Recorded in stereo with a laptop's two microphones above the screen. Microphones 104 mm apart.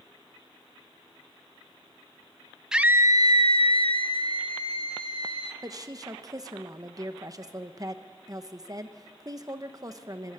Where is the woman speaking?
35° right (ahead or behind), 1.0 m.